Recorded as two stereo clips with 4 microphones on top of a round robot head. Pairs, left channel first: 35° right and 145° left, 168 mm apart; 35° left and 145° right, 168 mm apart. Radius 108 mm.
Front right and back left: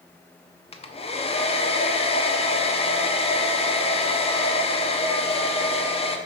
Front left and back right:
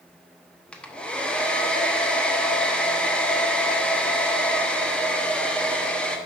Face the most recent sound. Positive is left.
turn(degrees=-45)